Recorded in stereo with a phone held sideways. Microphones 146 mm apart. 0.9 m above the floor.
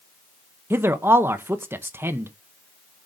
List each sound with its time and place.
0.7 s a man speaking: 15° right (ahead or behind), 0.7 m